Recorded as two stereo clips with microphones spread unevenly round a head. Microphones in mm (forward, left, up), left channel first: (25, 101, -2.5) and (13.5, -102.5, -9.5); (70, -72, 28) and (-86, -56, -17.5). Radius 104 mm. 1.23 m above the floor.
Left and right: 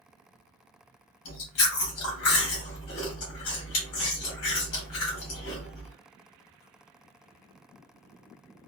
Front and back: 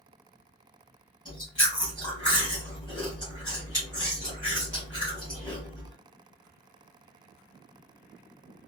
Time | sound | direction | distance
1.2 | chewing | 95° left | 2 m